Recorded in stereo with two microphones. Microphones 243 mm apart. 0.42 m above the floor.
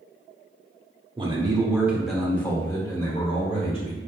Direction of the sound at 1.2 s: 20° right (ahead or behind).